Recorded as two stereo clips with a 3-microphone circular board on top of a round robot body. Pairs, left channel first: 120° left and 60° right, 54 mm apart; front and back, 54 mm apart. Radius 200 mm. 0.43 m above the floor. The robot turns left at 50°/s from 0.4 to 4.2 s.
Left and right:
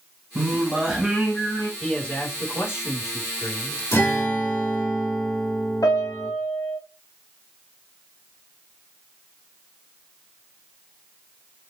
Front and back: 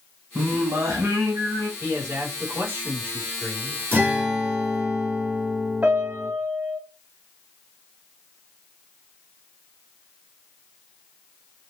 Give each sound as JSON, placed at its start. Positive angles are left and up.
{"t": 0.3, "sound": "singing", "azimuth_deg": -125, "distance_m": 0.8}
{"t": 1.8, "sound": "a man speaking", "azimuth_deg": -165, "distance_m": 2.5}
{"t": 3.9, "sound": "a guitar", "azimuth_deg": 125, "distance_m": 3.0}
{"t": 5.8, "sound": "a piano", "azimuth_deg": 110, "distance_m": 0.8}